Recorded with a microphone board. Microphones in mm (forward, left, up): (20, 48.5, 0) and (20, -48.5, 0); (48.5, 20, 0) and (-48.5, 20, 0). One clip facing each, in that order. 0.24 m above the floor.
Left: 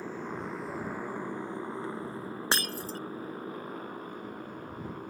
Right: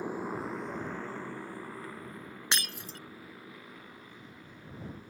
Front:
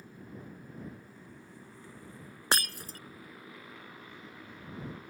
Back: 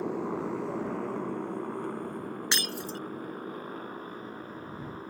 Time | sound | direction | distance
0.0 | a motorcycle | 165° right | ?
2.5 | breaking glass | 45° left | ?